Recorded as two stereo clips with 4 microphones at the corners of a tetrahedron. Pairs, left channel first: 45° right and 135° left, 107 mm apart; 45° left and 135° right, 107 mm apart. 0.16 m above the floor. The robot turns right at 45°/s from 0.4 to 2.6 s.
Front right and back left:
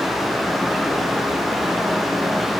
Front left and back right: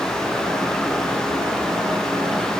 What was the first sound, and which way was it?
Only background noise.